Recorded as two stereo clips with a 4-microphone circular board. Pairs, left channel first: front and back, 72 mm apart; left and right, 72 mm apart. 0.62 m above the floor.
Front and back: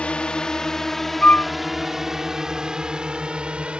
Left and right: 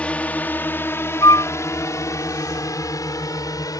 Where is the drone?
45° left; by 3.8 s 105° left.